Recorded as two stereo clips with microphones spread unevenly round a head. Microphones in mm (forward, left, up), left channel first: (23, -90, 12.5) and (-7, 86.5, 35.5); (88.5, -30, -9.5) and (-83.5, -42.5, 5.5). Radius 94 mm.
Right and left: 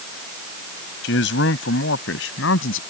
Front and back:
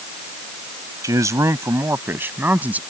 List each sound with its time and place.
1.0 s a man speaking: 105° right; by 2.8 s 95° right